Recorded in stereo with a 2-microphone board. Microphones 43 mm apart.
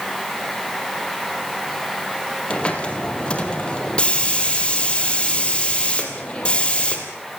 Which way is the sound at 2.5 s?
20° left (ahead or behind).